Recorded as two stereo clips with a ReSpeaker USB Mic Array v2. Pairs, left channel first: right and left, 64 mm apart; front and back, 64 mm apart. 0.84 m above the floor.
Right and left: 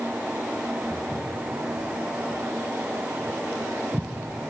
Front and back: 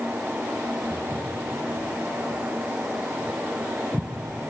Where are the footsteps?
110° right, 2 m; by 4.1 s 90° left, 0.8 m.